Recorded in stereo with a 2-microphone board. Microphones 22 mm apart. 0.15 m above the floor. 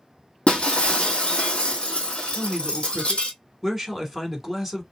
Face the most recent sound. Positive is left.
turn(degrees=-10)  # may be behind; listen again after turning